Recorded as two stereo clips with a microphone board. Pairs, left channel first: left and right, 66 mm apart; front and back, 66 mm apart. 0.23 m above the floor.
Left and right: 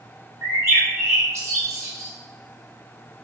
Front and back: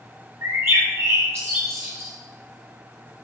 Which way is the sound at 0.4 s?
130° right.